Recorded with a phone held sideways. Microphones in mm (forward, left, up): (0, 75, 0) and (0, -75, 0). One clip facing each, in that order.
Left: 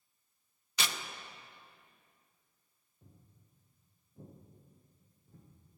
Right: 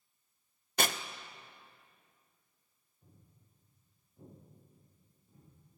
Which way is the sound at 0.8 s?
50° right (ahead or behind).